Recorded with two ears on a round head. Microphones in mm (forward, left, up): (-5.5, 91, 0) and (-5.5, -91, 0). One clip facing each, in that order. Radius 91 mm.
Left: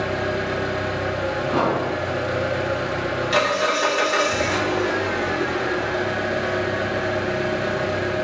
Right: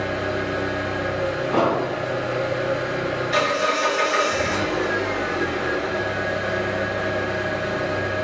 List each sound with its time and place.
0.0 s an engine running: 45° left (ahead or behind), 0.8 m
1.5 s an explosion: 30° left (ahead or behind), 1.7 m